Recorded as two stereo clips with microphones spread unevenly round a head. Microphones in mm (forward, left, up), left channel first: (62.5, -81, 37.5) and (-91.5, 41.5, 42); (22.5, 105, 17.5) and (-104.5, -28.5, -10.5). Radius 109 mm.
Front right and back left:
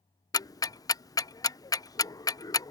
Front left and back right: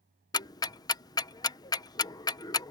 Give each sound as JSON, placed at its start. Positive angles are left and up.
{"t": 0.3, "sound": "ticking", "azimuth_deg": -10}